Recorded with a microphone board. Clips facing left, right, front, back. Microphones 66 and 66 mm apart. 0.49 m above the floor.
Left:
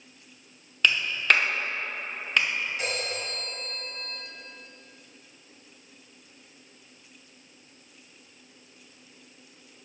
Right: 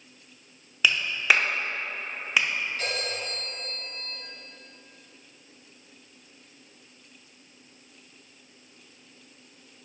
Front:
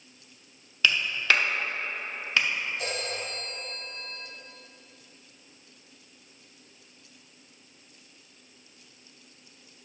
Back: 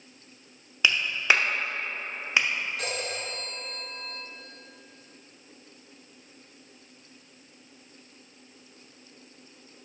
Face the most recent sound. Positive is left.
turn(degrees=165)